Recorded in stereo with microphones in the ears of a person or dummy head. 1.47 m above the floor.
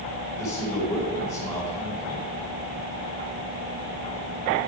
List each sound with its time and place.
0.4 s a man speaking: 25° left (ahead or behind), 5 m